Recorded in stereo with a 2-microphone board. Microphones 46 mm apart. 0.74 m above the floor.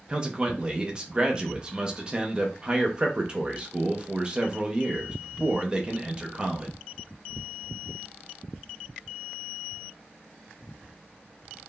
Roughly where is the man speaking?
Right.